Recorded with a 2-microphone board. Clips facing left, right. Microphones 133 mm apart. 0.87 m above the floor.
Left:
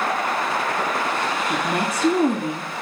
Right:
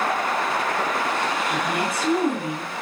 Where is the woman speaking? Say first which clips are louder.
Left 1 dB; 35° left (ahead or behind), 1.6 m.